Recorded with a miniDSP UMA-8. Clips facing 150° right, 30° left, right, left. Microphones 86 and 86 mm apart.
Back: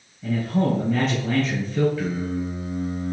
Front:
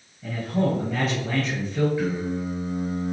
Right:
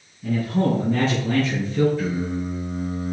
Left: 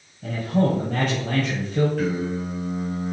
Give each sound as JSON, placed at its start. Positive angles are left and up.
{"t": 0.2, "sound": "a man speaking", "azimuth_deg": 120, "distance_m": 3.0}
{"t": 2.0, "sound": "singing", "azimuth_deg": 105, "distance_m": 3.5}